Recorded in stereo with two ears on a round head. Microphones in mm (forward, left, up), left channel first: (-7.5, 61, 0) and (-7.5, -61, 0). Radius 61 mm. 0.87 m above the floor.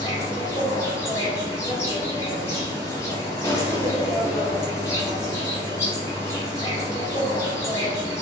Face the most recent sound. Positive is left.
turn(degrees=25)  # may be behind; listen again after turning